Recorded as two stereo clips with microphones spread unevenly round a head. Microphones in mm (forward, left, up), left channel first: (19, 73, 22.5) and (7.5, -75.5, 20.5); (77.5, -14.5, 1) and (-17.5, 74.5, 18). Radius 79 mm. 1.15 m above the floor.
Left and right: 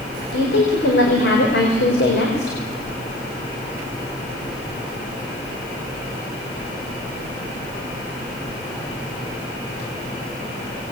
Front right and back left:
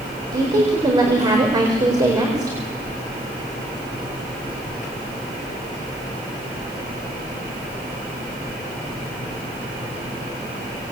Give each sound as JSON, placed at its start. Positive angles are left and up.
{"t": 0.3, "sound": "a woman speaking", "azimuth_deg": 80, "distance_m": 4.0}